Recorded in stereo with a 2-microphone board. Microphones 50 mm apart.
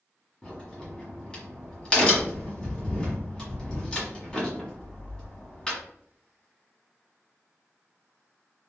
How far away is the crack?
About 1.4 m.